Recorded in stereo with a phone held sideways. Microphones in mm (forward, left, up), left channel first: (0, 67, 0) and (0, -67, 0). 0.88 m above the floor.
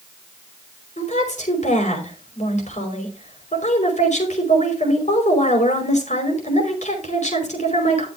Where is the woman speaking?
60° left (ahead or behind), 5 m.